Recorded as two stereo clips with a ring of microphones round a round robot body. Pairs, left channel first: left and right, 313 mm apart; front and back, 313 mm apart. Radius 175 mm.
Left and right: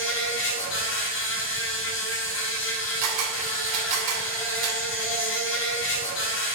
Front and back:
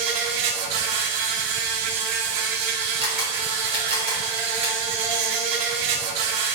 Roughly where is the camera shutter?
Behind right.